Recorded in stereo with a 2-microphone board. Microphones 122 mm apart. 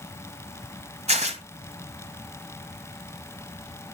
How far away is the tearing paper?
About 1.8 m.